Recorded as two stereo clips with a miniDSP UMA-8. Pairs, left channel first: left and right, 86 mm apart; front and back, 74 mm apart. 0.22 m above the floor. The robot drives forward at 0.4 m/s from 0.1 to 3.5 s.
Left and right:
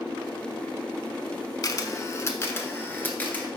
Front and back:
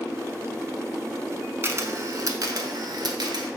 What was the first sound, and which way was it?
A camera shutter, 130° left.